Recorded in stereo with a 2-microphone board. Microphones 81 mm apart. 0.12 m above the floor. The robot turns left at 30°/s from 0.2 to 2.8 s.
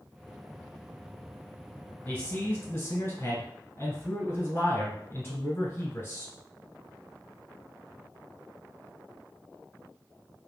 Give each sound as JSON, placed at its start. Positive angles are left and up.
{"t": 2.0, "sound": "a man speaking", "side_deg": 25, "distance_m": 1.3}